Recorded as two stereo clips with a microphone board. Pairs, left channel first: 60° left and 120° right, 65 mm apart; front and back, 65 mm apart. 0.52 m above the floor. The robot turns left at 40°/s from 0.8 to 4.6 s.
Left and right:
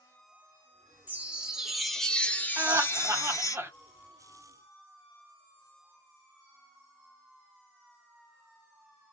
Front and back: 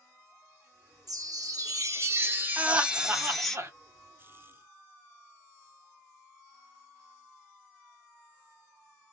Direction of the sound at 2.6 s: 115° right.